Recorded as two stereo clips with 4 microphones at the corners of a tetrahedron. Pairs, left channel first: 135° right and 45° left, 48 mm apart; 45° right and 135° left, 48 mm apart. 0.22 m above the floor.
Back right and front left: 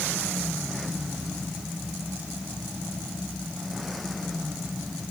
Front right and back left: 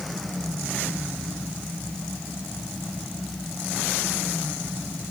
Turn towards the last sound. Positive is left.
No sound to turn to.